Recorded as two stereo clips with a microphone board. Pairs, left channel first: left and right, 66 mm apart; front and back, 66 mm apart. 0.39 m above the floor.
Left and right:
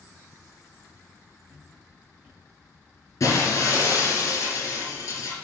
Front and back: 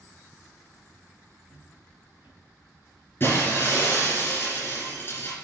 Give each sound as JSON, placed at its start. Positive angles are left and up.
{"t": 1.5, "sound": "footsteps", "azimuth_deg": -15, "distance_m": 3.0}
{"t": 3.2, "sound": "breaking glass", "azimuth_deg": 50, "distance_m": 3.0}